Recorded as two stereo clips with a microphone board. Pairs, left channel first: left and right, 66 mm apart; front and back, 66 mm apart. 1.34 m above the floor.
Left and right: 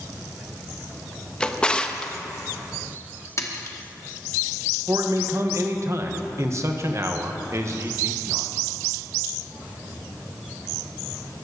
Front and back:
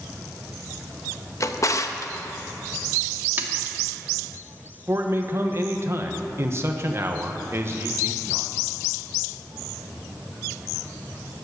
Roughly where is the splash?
Behind left.